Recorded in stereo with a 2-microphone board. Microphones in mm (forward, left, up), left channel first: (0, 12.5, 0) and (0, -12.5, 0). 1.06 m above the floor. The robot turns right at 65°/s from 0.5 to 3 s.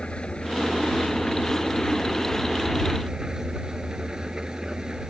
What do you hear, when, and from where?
0.0 s an engine running: 45° left; by 5.1 s 155° right